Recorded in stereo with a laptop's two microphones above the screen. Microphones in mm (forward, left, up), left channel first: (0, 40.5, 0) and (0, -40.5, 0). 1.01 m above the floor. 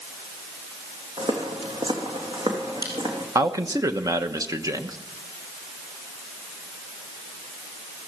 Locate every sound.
1.2 s footsteps: 70° right (ahead or behind), 3 m; by 3.2 s 60° right (ahead or behind), 3.5 m
3.4 s a man speaking: 45° right (ahead or behind), 1.0 m